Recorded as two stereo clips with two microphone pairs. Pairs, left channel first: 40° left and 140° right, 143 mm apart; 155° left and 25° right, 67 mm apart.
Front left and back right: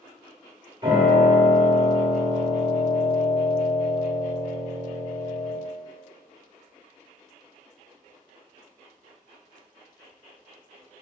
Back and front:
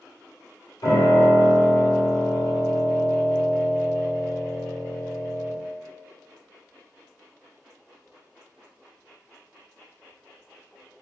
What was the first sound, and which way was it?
A piano, 160° left.